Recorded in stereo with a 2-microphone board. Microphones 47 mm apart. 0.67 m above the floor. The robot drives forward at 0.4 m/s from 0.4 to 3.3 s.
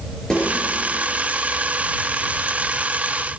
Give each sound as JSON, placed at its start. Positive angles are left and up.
{"t": 0.3, "sound": "a snare drum", "side_deg": 15, "distance_m": 4.5}